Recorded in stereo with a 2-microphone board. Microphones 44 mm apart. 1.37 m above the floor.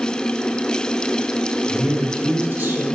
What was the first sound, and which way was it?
A man speaking, 50° right (ahead or behind).